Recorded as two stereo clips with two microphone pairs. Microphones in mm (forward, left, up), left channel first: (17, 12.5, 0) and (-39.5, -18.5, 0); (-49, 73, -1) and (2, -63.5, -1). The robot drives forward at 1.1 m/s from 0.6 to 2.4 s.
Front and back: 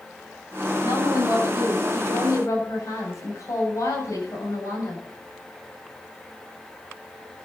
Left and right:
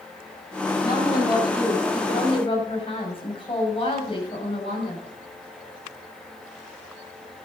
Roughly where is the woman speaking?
Ahead left.